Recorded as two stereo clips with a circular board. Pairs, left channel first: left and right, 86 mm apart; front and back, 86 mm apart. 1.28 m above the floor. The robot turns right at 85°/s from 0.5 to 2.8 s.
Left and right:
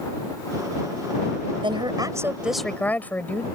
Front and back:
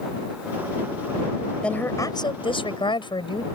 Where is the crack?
I don't hear a crack.